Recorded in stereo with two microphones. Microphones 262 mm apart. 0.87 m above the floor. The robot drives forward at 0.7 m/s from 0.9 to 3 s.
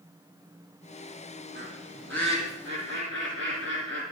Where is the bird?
40° right (ahead or behind), 8 m; by 4.0 s 45° right (ahead or behind), 7.5 m.